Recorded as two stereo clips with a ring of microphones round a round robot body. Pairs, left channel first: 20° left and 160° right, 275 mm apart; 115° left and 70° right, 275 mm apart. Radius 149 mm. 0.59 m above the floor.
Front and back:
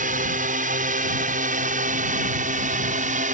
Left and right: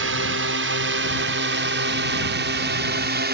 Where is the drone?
100° right; by 3.4 s 105° right.